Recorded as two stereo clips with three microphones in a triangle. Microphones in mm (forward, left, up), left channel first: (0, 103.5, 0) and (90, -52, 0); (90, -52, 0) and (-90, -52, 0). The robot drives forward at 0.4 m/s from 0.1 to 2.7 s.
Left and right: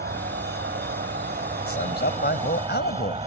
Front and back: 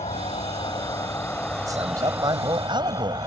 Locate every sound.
0.0 s an insect: 55° right; by 3.3 s 115° right
1.7 s a man speaking: 110° left; by 3.2 s 115° left